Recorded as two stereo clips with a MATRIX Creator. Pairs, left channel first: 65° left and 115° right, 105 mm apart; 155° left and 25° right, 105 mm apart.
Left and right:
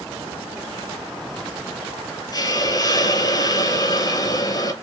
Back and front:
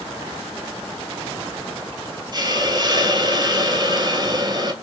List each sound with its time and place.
2.3 s a hiss: 20° left, 0.6 m